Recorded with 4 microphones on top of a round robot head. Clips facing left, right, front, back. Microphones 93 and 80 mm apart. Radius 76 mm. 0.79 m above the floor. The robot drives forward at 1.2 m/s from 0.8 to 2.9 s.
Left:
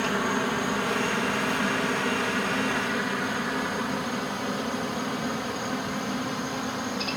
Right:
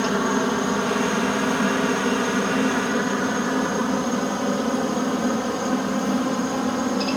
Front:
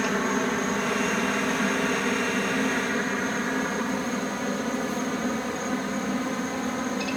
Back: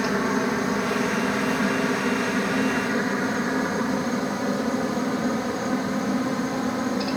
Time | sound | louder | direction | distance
0.0 | a helicopter | right 5 dB, back 2 dB | 110° right | ?